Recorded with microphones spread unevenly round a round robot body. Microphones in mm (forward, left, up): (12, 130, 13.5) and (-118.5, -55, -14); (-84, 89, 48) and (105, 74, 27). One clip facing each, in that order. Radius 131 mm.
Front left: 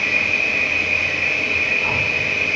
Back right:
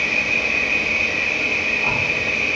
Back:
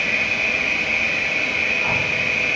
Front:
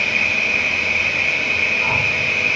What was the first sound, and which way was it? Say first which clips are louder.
An insect: back right 1 dB, even; 35° right.